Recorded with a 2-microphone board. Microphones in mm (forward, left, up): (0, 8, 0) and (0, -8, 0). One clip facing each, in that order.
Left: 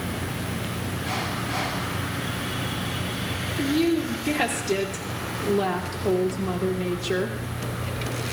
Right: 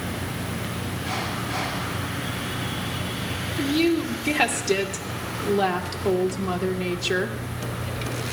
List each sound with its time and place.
3.6 s a woman speaking: 40° right (ahead or behind), 1.7 m